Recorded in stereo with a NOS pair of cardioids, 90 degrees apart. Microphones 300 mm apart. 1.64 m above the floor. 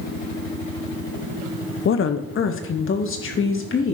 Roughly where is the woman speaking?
Ahead left.